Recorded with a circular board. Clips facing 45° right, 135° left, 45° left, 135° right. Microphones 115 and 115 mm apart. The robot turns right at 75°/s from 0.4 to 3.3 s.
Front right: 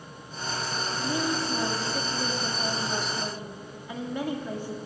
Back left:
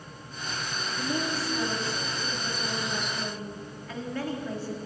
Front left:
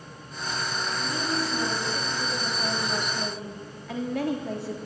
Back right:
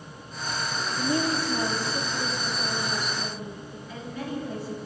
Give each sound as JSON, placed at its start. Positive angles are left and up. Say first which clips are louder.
{"t": 1.0, "sound": "a woman speaking", "louder": "front right 1 dB, back right 5 dB", "azimuth_deg": -145, "distance_m": 3.0}